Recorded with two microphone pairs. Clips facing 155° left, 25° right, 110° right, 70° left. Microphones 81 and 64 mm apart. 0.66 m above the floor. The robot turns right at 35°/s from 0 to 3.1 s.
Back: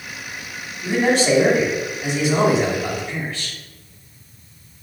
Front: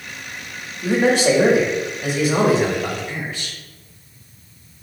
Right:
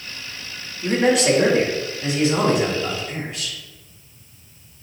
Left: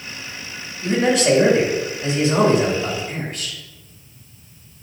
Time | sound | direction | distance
0.8 | a man speaking | 35° right | 2.5 m